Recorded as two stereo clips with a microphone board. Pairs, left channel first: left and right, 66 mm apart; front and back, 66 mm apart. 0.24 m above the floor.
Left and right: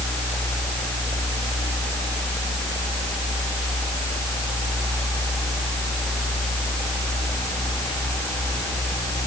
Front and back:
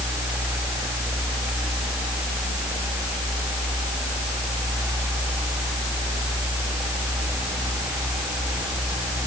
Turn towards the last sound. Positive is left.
No sound to turn to.